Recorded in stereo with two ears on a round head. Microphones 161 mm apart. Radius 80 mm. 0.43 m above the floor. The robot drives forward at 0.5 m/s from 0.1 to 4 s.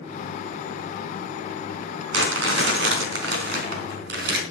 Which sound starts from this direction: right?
Crumpling, at 2.1 s.